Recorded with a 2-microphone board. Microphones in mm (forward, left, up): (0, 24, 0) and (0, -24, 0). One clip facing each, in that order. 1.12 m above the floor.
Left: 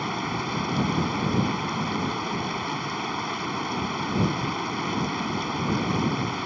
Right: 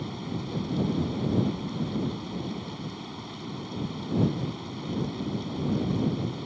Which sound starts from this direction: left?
Running water, at 0.0 s.